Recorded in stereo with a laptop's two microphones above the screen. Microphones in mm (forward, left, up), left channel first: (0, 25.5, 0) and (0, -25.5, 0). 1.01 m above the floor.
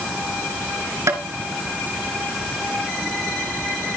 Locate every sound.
1.1 s tapping: 80° right, 2.5 m